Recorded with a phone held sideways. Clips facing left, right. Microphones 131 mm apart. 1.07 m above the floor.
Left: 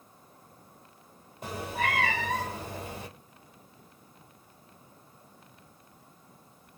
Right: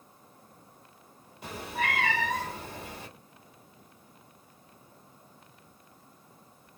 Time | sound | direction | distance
1.4 | a cat meowing | 45° left (ahead or behind) | 1.4 m